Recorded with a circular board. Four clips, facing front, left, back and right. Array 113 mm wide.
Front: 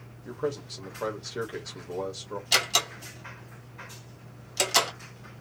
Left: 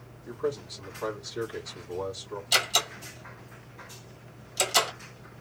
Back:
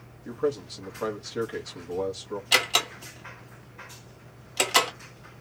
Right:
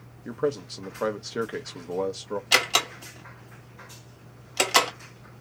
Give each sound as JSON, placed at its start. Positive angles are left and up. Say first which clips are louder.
{"t": 0.2, "sound": "a man speaking", "louder": "right 4 dB, back 4 dB", "azimuth_deg": -90, "distance_m": 1.3}
{"t": 2.5, "sound": "a door slam", "louder": "right 3 dB, back 2 dB", "azimuth_deg": -110, "distance_m": 1.6}